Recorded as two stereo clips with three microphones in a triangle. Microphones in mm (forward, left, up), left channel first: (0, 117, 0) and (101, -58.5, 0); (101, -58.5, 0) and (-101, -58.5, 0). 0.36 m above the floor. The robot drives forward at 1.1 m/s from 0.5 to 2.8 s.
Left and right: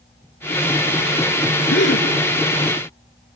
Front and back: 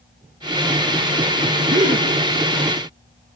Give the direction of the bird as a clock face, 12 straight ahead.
I don't hear a bird.